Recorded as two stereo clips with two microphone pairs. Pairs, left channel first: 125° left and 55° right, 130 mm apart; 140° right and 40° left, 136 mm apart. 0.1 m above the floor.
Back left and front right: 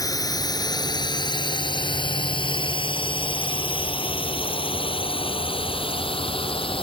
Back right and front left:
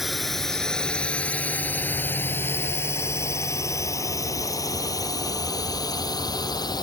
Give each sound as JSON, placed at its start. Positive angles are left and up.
{"t": 0.0, "sound": "a drone", "azimuth_deg": 130}